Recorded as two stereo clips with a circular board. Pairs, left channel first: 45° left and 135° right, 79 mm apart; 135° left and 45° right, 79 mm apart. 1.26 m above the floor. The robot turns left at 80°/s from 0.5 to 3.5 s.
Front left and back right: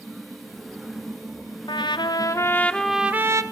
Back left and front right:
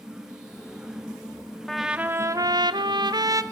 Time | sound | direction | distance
1.7 | a trumpet | 50° left | 0.6 m